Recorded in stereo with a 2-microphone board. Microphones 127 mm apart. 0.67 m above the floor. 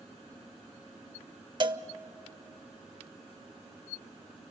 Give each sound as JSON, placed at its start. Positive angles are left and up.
{"t": 1.6, "sound": "a cowbell", "side_deg": -40, "distance_m": 0.7}